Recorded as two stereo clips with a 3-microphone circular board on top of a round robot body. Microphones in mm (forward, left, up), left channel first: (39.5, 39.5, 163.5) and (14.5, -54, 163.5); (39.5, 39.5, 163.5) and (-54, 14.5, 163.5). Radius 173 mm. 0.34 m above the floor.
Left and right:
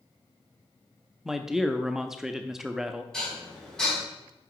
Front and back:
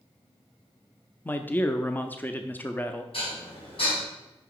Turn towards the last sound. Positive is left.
turn(degrees=-10)